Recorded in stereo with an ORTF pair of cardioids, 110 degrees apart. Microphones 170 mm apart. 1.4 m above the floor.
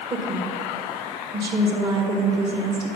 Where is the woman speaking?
30° right, 1.8 m.